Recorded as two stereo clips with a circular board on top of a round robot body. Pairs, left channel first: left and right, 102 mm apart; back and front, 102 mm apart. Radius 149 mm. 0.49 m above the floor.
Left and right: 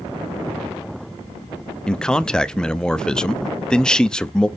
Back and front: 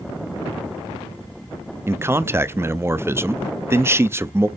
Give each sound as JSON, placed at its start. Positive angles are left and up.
{"t": 1.9, "sound": "a man speaking", "azimuth_deg": 15, "distance_m": 0.7}